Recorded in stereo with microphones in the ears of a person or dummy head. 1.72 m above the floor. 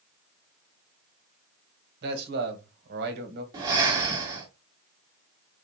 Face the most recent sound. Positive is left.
turn(degrees=-20)  # may be behind; listen again after turning